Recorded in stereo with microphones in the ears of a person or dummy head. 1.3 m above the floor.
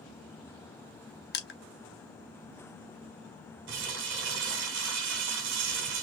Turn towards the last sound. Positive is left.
turn(degrees=-65)  # may be behind; listen again after turning